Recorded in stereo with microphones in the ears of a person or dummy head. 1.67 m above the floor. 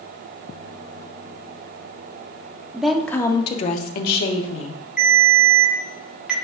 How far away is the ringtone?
About 1.5 m.